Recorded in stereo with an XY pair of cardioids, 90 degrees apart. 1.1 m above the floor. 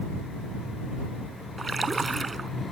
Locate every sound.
1.6 s a splash: 30° right